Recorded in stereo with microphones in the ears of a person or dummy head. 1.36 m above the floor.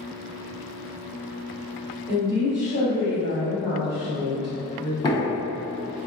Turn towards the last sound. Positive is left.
turn(degrees=20)  # may be behind; listen again after turning